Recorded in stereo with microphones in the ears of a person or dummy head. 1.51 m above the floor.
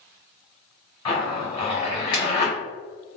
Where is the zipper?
25° left (ahead or behind), 1.1 m.